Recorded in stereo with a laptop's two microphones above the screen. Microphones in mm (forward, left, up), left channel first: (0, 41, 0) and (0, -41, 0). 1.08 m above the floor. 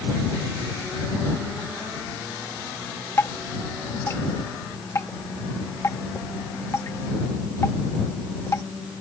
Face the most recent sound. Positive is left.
turn(degrees=35)  # may be behind; listen again after turning